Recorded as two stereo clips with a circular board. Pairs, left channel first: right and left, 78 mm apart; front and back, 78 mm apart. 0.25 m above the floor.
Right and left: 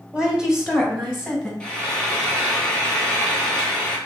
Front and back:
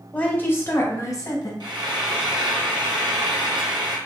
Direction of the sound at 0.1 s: 40° left.